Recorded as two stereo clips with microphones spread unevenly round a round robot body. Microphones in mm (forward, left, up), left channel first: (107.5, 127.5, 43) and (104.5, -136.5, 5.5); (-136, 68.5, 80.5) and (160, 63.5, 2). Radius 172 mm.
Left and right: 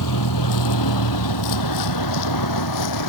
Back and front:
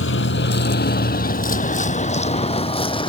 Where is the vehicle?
130° left; by 3.1 s 105° left.